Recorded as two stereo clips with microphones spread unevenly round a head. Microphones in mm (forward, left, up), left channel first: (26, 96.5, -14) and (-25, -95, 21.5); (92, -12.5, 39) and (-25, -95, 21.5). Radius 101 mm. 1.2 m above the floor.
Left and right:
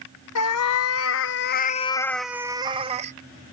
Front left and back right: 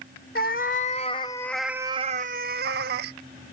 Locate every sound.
0.3 s a cat meowing: 70° left; by 3.1 s 150° right